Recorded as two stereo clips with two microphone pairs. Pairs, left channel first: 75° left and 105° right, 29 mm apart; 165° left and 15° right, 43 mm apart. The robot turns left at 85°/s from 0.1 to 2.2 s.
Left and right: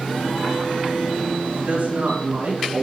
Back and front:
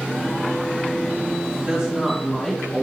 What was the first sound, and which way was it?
A woman speaking, 70° right.